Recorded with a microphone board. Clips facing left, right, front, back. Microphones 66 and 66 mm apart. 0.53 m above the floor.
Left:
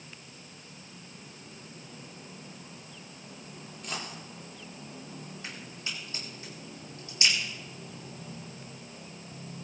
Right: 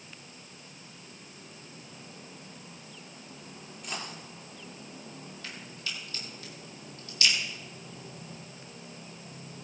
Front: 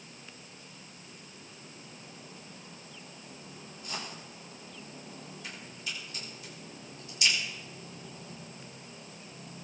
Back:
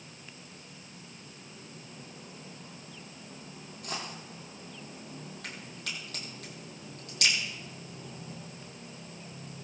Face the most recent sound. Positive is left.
turn(degrees=155)